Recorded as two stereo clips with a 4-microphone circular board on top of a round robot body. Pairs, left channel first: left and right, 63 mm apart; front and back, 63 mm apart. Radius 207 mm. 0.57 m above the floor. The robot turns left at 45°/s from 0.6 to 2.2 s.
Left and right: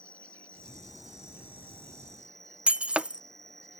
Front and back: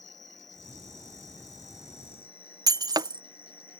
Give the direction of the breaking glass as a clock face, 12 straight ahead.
5 o'clock.